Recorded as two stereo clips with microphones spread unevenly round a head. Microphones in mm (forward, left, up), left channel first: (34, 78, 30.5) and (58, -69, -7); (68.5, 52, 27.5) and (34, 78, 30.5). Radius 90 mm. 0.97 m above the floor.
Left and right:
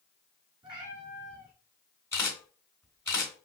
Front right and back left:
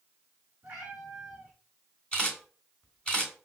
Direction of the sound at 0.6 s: 155° right.